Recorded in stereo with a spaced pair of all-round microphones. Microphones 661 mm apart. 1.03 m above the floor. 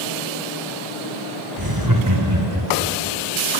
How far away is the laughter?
About 4 m.